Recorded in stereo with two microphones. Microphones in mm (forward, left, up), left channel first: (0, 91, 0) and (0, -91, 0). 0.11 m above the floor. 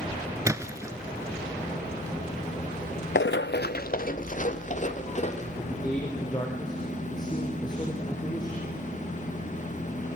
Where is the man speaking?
20° left (ahead or behind), 4.5 m.